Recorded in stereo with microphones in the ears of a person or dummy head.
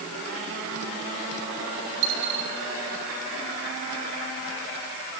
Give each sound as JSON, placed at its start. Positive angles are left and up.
{"t": 2.0, "sound": "a dropped coin", "side_deg": -60, "distance_m": 3.0}